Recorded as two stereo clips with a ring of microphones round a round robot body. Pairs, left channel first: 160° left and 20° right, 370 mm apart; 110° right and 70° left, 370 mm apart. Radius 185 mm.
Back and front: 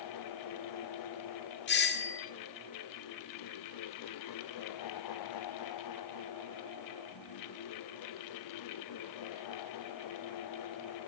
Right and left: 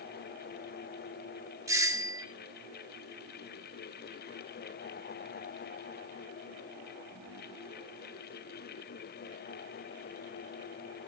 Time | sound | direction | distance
1.7 | a doorbell | 140° left | 1.5 m